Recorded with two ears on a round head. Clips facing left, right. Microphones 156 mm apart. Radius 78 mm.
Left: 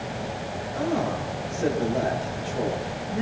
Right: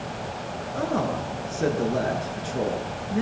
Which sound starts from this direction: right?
A man speaking, at 0.7 s.